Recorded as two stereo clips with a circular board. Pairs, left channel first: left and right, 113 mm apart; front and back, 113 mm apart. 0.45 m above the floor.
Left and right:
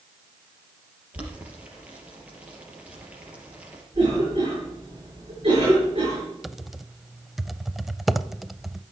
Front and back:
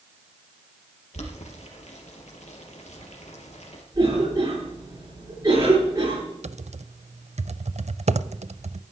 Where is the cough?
130° right, 6.5 m.